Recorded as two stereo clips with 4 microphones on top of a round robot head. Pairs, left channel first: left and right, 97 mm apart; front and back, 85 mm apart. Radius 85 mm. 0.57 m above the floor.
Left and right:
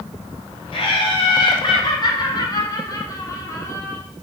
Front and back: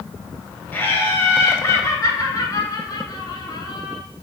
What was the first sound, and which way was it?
Laughter, 65° left.